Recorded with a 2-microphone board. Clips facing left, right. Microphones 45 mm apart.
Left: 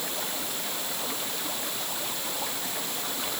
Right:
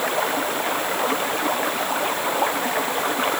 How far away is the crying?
I don't hear crying.